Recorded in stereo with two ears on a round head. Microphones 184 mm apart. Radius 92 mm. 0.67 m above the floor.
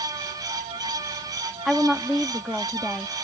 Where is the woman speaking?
Centre (ahead or behind).